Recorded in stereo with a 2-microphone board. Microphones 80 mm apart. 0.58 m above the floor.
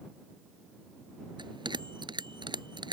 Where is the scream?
I don't hear a scream.